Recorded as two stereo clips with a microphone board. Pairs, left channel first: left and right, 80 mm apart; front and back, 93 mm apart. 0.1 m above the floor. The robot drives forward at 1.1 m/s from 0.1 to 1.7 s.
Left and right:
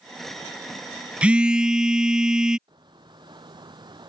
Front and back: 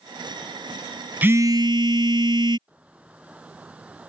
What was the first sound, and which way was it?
A phone buzzing, 140° right.